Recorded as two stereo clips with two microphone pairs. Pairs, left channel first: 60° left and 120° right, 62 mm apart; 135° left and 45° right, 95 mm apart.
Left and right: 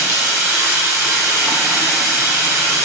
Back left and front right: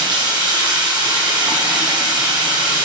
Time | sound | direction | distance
0.0 | running water | 85° right | 3.5 m